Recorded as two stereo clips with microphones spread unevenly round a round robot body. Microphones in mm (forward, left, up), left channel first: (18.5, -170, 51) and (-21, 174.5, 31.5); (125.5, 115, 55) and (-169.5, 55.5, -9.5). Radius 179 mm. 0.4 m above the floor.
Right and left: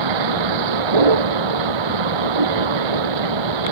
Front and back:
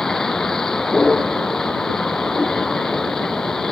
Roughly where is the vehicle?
Left.